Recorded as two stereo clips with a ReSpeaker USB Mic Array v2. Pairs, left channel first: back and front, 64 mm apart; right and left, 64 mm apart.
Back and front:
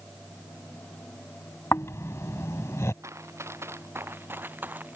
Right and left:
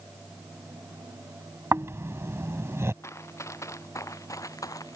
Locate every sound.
1.7 s snoring: 135° left
3.0 s running footsteps: 45° right; by 5.0 s 65° right